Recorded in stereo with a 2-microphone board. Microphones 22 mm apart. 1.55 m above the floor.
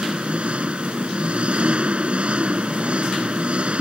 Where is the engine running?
60° right (ahead or behind).